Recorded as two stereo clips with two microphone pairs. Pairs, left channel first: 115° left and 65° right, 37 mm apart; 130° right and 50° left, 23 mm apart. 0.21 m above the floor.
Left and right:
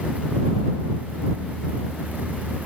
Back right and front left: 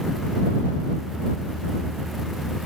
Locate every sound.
Only background noise.